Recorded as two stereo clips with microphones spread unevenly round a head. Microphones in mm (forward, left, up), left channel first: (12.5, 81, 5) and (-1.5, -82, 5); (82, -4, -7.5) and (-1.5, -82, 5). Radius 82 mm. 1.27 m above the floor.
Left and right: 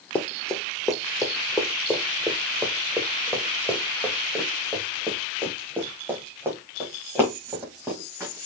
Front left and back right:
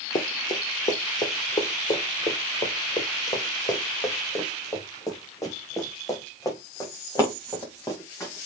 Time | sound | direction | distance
0.1 | running footsteps | 5° left | 1.5 m